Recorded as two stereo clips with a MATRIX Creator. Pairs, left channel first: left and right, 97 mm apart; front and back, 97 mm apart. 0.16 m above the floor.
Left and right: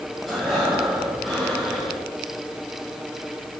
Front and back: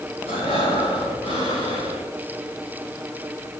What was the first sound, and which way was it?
Breathing, 5° right.